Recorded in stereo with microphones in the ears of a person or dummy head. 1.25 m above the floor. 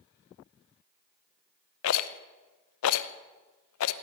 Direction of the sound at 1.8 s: 75° left (ahead or behind).